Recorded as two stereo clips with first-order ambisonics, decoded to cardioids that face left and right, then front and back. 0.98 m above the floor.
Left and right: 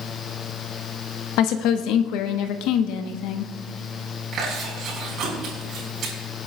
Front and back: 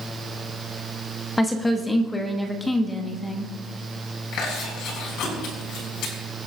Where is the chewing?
40° right, 4.5 m.